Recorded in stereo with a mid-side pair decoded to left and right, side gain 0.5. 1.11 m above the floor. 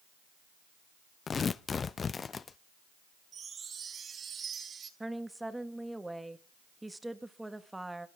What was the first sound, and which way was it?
Tearing paper, 35° left.